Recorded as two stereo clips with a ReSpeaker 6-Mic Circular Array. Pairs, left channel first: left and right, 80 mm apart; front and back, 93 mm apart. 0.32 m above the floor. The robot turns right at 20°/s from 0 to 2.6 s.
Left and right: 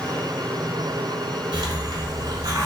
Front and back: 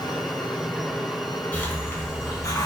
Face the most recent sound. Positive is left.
turn(degrees=-50)